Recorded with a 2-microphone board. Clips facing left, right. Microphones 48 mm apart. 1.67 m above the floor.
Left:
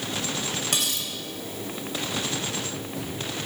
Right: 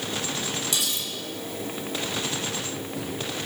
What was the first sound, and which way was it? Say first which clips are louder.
Cutlery clinking: left 1 dB; 50° left (ahead or behind).